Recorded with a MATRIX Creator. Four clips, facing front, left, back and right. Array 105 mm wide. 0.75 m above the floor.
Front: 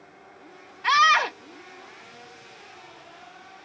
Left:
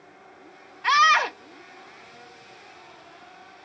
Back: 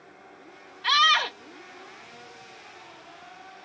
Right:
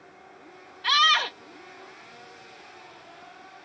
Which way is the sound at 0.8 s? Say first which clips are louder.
Left 5 dB, front 4 dB; 50° left.